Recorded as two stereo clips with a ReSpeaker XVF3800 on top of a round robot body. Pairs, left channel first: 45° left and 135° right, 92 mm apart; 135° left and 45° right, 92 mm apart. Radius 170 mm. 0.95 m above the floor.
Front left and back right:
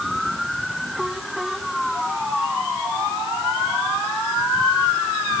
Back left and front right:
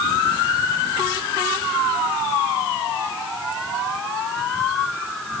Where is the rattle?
No rattle in this recording.